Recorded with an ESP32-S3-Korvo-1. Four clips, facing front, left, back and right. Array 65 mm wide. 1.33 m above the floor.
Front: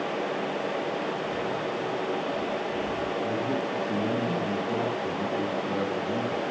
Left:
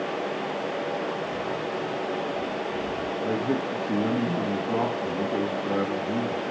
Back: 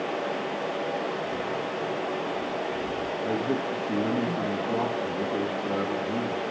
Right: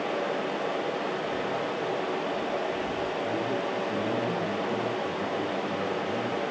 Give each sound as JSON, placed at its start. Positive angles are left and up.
{"t": 1.2, "sound": "footsteps", "azimuth_deg": -45, "distance_m": 6.0}
{"t": 3.2, "sound": "a man speaking", "azimuth_deg": 115, "distance_m": 2.0}